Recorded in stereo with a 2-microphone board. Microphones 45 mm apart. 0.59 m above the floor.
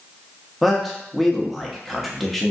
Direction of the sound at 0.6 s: 5° left (ahead or behind).